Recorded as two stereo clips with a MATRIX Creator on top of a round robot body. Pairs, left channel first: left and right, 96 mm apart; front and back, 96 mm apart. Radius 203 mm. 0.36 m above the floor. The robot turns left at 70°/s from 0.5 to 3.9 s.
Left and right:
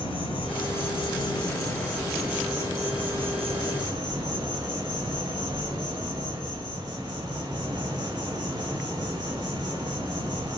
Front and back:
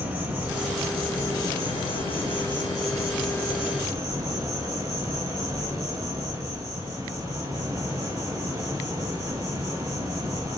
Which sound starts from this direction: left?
An insect, at 0.0 s.